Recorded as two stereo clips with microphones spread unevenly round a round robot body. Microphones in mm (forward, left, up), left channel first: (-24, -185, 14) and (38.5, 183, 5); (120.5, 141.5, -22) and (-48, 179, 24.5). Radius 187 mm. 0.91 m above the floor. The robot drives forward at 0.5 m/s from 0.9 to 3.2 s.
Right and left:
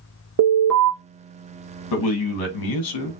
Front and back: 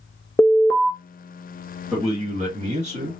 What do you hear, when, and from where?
0.4 s an alarm: 45° left, 1.5 m
1.9 s a man speaking: 95° right, 1.1 m; by 3.1 s 125° right, 1.3 m